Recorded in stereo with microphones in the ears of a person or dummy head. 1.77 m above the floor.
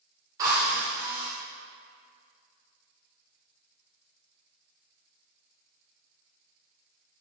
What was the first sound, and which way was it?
A drill, 10° right (ahead or behind).